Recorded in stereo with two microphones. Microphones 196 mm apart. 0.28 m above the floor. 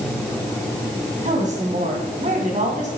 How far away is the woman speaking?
About 2.5 m.